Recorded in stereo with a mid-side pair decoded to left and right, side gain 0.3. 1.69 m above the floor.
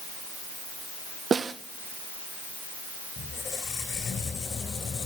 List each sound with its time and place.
1.3 s a snare drum: 60° right, 1.5 m
3.2 s a squeak: 70° left, 4 m